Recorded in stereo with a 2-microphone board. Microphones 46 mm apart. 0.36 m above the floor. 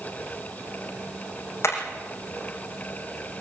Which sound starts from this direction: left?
Hammering, at 1.6 s.